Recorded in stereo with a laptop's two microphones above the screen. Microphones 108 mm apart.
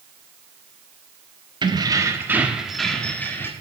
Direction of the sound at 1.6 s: 45° right (ahead or behind).